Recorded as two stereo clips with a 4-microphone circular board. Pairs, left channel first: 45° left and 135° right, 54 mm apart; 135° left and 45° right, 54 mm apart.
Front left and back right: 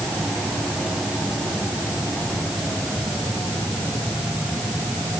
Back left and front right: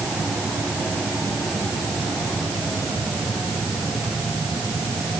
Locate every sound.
Only background noise.